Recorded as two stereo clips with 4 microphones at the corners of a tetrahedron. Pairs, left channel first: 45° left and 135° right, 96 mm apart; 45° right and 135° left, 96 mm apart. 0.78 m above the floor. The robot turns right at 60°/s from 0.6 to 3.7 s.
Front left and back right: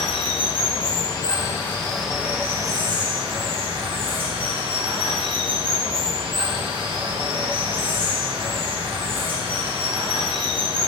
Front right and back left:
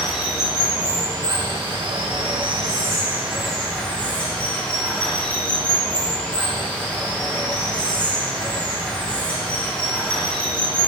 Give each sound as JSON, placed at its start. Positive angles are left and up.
{"t": 0.0, "sound": "running water", "azimuth_deg": 55, "distance_m": 1.2}